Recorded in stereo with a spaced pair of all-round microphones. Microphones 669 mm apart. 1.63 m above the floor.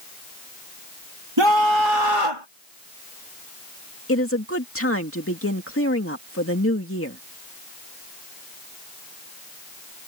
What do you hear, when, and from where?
1.4 s a scream: 40° right (ahead or behind); by 2.5 s 50° right (ahead or behind)
4.1 s a woman speaking: 20° left (ahead or behind)